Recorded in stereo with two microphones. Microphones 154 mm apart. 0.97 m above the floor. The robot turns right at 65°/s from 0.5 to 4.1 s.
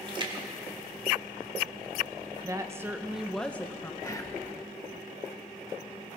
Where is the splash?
30° right (ahead or behind), 1.7 m; by 1.8 s 60° right (ahead or behind), 1.7 m.